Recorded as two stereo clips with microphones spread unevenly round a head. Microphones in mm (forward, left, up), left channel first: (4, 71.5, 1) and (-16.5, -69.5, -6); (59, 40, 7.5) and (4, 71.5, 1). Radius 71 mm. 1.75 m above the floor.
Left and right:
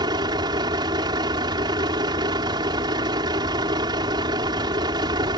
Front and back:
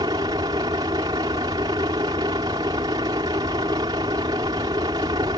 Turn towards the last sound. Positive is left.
turn(degrees=-160)